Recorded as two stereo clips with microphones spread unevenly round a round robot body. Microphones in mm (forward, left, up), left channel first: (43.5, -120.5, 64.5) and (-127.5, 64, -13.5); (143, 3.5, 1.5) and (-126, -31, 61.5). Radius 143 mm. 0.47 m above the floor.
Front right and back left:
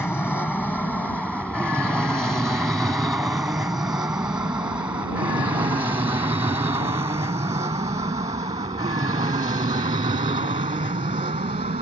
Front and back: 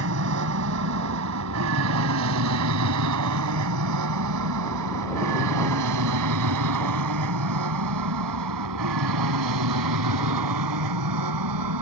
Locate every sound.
0.0 s an aircraft: 135° right; by 11.8 s 165° right